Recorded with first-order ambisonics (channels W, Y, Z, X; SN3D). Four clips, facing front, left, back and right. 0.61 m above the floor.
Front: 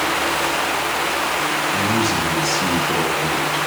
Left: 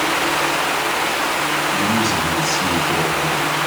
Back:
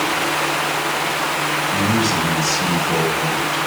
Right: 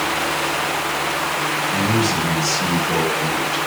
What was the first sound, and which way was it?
A man speaking, 155° right.